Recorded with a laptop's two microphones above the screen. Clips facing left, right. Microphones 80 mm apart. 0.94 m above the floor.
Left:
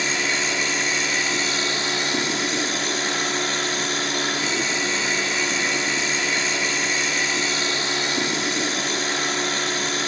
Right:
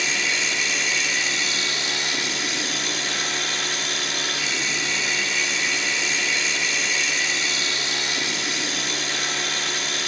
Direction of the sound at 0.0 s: 35° left (ahead or behind).